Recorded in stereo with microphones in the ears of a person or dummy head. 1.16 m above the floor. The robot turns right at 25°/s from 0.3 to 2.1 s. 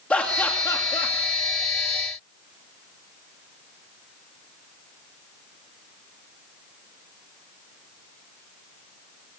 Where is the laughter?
10° left (ahead or behind), 2.5 m; by 1.1 s 30° left (ahead or behind), 2.5 m.